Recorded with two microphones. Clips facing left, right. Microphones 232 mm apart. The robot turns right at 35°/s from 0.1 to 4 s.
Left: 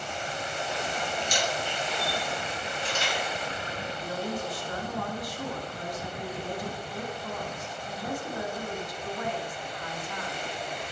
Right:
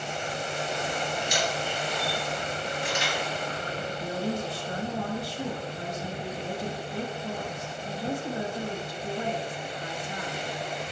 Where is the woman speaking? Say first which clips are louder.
Right 3 dB; 30° right (ahead or behind), 1.1 m.